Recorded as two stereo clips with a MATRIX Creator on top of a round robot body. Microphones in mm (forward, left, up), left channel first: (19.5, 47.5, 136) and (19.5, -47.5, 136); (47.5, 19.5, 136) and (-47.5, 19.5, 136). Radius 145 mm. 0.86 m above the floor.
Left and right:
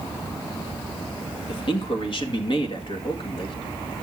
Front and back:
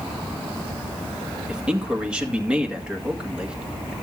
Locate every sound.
1.5 s a man speaking: 100° left, 2.0 m